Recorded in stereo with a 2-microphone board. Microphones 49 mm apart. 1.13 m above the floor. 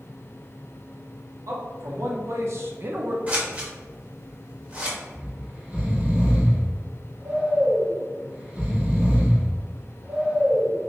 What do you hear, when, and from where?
1.5 s a man speaking: 70° right (ahead or behind), 1.4 m; by 3.2 s 30° right (ahead or behind), 0.5 m
3.3 s scissors: 25° right (ahead or behind), 1.0 m
5.1 s snoring: 25° right (ahead or behind), 1.2 m